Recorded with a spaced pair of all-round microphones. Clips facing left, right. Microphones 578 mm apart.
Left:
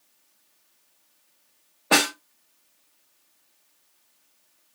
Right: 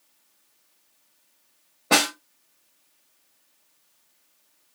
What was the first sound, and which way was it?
A snare drum, 65° right (ahead or behind).